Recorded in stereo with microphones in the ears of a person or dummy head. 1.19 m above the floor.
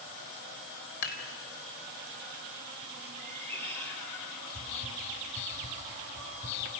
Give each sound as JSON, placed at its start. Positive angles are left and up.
{"t": 1.0, "sound": "dishes clattering", "side_deg": 80, "distance_m": 4.0}
{"t": 3.2, "sound": "a cat meowing", "side_deg": 10, "distance_m": 4.5}
{"t": 4.5, "sound": "whispering", "side_deg": 40, "distance_m": 8.0}